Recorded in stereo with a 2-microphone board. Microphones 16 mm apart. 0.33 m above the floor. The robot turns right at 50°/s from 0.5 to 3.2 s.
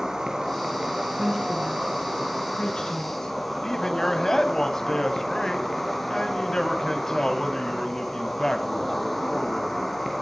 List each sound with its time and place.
0.0 s an insect: 130° right, 2.5 m; by 10.2 s 5° left, 2.5 m
1.2 s a woman speaking: 35° right (ahead or behind), 4.5 m; by 3.4 s 65° left (ahead or behind), 4.5 m
3.6 s a man speaking: 35° left (ahead or behind), 1.8 m